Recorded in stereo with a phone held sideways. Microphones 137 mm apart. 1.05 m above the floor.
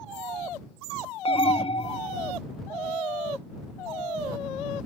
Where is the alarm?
40° left (ahead or behind).